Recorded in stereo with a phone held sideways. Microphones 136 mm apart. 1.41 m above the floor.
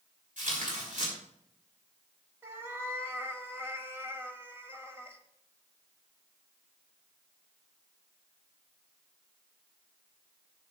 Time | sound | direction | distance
0.4 | tearing paper | 70° right (ahead or behind) | 5 m
2.4 | a cat meowing | 20° right (ahead or behind) | 1.4 m